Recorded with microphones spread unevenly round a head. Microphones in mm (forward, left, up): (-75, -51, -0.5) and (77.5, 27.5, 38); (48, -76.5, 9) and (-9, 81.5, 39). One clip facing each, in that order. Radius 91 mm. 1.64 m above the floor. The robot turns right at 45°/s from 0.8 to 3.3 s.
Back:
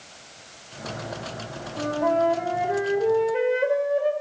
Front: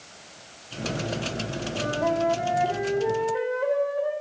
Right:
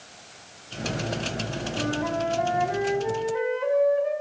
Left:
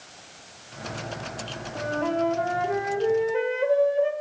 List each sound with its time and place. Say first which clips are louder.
1.8 s a flute: back 3 dB, left 2 dB; 75° left, 2.5 m; by 4.1 s 145° left, 2.5 m